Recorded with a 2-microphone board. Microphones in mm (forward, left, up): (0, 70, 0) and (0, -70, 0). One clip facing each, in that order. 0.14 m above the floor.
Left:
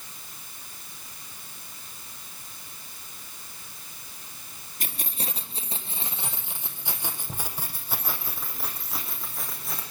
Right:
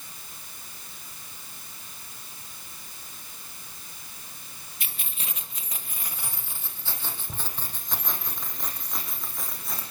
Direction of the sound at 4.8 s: 45° left (ahead or behind).